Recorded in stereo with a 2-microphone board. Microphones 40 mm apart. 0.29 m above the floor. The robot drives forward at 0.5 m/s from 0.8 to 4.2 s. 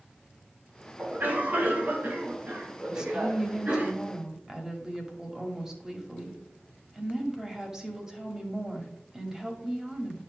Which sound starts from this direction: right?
A cough, at 1.0 s.